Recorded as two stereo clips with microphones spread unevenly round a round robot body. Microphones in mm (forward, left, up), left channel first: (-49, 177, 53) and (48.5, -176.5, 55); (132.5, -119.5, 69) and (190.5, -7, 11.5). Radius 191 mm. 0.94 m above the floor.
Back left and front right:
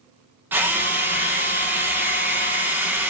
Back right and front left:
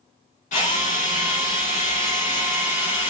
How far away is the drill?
About 0.9 m.